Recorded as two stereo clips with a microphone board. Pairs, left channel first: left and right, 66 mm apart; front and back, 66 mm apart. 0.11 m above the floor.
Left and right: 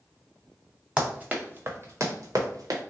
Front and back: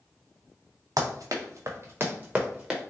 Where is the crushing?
I don't hear crushing.